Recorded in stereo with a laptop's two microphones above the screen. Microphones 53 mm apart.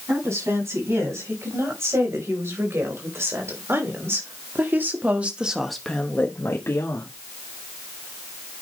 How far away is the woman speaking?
About 6.5 m.